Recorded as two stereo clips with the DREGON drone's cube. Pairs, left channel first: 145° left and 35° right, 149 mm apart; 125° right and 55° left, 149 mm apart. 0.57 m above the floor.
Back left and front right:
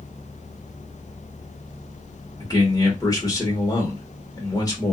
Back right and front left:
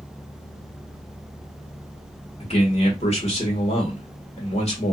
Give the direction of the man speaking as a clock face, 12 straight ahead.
5 o'clock.